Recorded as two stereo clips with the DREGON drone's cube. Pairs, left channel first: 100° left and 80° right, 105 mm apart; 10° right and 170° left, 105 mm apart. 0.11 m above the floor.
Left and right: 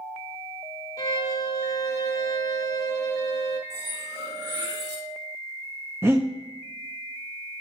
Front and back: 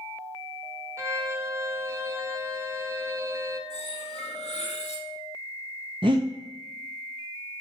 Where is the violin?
120° left, 1.0 m.